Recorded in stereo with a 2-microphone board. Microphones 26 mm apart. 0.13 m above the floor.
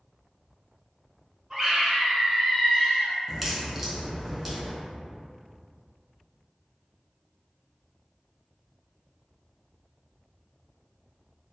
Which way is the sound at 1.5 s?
25° right (ahead or behind).